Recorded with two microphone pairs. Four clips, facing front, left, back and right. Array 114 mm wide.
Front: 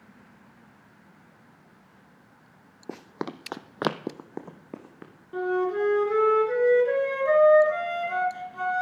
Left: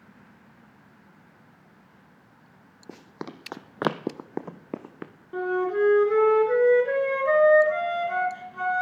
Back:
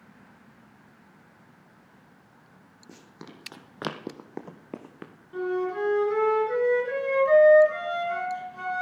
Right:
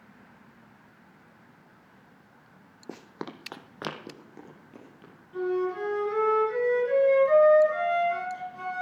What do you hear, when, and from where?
2.9 s running footsteps: 15° right, 1.0 m; by 5.1 s 100° left, 1.5 m
5.3 s a flute: 60° left, 3.5 m